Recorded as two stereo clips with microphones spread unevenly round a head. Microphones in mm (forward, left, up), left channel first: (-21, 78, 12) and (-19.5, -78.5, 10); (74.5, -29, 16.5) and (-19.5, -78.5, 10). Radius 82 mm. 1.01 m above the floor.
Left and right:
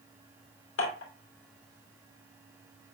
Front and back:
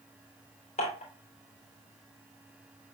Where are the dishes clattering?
80° left, 2.5 m.